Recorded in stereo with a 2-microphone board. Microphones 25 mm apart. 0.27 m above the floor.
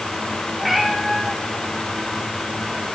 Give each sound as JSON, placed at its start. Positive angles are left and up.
{"t": 0.6, "sound": "a cat meowing", "side_deg": -10, "distance_m": 7.0}